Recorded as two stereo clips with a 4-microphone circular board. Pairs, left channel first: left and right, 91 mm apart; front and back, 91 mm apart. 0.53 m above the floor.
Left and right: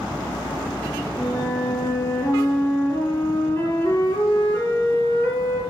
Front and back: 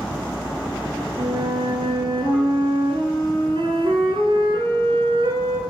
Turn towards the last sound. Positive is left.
turn(degrees=145)